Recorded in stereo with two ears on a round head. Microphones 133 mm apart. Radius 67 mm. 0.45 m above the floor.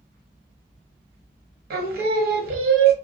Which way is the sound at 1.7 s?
70° right (ahead or behind).